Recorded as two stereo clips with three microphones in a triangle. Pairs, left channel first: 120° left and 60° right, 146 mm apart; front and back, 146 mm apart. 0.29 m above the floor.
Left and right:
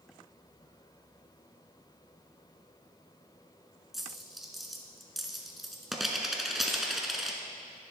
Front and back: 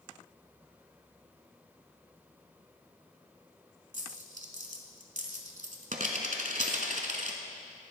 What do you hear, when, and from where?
3.9 s a dropped coin: 150° right, 0.8 m